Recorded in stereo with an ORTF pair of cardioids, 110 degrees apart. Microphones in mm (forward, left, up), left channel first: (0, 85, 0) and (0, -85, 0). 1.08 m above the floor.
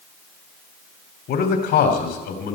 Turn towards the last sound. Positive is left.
turn(degrees=70)